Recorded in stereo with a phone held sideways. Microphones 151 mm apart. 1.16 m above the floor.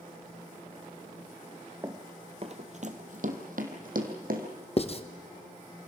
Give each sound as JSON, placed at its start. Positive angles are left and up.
{"t": 1.8, "sound": "running footsteps", "side_deg": -20, "distance_m": 1.2}
{"t": 4.8, "sound": "writing", "side_deg": 40, "distance_m": 1.1}